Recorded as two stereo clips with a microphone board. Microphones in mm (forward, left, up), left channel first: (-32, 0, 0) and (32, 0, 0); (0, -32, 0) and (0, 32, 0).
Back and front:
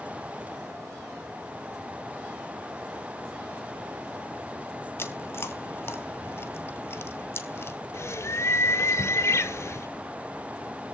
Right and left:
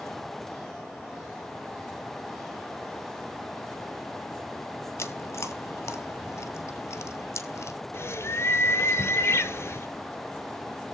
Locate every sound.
5.0 s chewing: 130° right, 0.9 m
7.9 s a bird: 135° right, 0.9 m